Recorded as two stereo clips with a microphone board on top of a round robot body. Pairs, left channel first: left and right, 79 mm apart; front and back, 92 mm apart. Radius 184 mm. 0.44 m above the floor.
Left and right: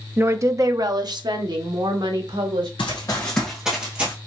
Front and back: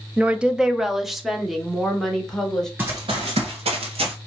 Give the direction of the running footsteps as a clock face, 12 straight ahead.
8 o'clock.